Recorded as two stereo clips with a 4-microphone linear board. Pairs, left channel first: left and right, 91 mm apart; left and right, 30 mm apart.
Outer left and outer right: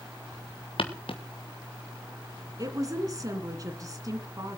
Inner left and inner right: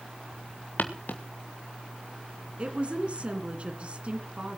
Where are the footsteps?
75° left (ahead or behind), 2.0 m.